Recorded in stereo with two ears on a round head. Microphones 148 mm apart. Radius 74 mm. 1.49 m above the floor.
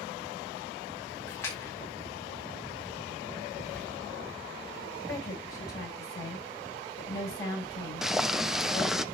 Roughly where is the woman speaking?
Left.